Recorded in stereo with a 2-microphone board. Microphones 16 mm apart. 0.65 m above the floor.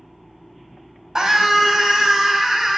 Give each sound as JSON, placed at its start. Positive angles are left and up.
{"t": 1.1, "sound": "a scream", "side_deg": -55, "distance_m": 5.0}